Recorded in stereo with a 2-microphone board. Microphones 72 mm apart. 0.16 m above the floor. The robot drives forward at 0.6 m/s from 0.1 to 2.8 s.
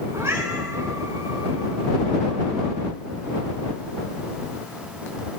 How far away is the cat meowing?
About 4.5 m.